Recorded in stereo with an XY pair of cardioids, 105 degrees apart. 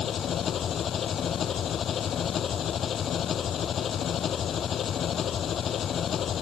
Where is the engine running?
55° left.